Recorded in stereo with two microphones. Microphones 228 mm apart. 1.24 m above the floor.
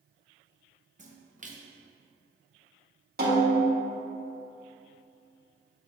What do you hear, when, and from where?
1.0 s a splash: 35° right (ahead or behind), 0.8 m
3.2 s a snare drum: 45° right (ahead or behind), 1.3 m